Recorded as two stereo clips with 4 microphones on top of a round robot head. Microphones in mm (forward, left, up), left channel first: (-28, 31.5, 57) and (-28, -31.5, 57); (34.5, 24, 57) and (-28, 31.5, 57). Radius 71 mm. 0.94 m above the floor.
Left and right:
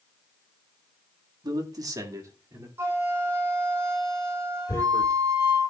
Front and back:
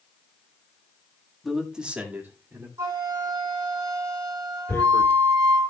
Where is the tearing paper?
45° left, 1.7 m.